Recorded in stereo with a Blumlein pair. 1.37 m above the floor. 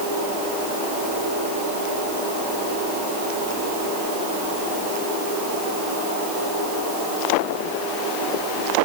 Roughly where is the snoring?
I don't hear snoring.